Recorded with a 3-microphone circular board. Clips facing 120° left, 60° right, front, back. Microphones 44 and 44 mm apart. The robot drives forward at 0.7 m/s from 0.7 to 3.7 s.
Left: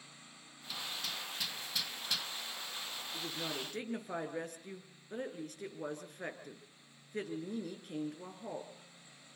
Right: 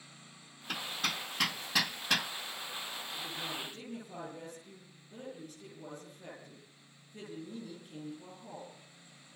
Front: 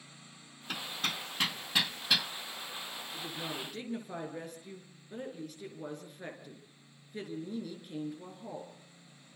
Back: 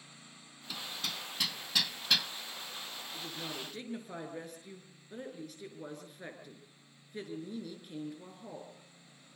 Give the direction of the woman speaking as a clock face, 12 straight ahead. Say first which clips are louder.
Left 1 dB, front 2 dB; 9 o'clock.